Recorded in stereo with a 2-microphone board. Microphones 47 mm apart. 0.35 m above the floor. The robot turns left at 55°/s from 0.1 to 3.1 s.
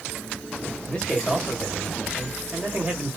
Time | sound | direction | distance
0.9 | a man speaking | 45° left | 1.3 m